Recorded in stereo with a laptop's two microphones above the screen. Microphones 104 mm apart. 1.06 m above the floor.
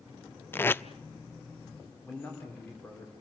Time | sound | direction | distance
0.5 | tape being pulled | 20° left (ahead or behind) | 0.6 m
2.0 | a man speaking | 20° left (ahead or behind) | 3.5 m